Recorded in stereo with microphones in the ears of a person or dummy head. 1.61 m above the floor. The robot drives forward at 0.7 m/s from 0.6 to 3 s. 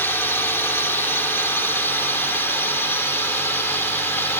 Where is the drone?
10° left (ahead or behind); by 4.4 s 5° left (ahead or behind).